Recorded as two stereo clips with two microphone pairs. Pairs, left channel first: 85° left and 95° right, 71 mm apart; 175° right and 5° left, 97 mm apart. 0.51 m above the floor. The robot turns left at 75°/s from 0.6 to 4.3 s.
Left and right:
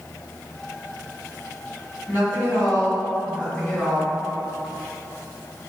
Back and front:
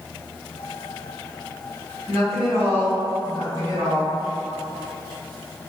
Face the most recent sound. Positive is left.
turn(degrees=-55)